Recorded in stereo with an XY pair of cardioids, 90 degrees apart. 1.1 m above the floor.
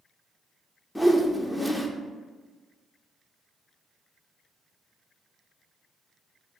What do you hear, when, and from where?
0.9 s a whoosh: 10° left, 0.6 m